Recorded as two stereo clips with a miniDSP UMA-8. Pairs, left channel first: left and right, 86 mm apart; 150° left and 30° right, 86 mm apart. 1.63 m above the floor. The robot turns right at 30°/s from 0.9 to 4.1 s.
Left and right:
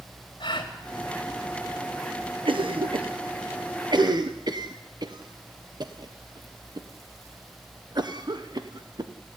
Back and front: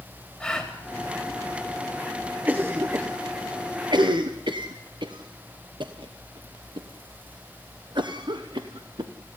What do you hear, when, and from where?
0.4 s a gasp: 75° left, 3.5 m
2.5 s a cough: 105° right, 1.1 m; by 9.1 s 55° right, 1.1 m